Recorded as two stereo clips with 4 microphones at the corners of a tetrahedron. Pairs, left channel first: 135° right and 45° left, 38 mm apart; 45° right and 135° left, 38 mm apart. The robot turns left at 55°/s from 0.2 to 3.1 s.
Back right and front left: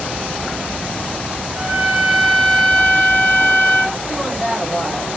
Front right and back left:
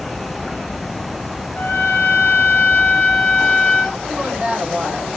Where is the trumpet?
Straight ahead, 1.6 m; by 4.0 s 85° right, 1.6 m.